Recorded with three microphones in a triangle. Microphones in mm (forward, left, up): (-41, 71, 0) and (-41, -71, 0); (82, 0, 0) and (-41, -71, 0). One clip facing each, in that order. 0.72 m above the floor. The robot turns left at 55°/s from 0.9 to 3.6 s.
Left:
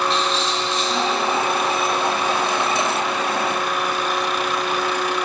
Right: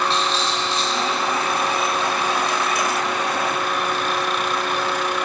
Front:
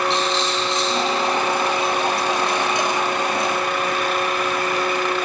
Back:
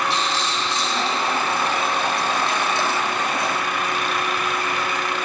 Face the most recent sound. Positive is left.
turn(degrees=175)